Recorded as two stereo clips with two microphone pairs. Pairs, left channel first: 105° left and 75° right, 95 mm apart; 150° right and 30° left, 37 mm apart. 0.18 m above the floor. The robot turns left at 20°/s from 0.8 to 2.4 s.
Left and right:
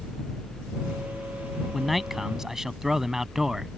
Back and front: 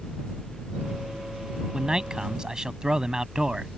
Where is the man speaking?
15° left; by 3.7 s straight ahead.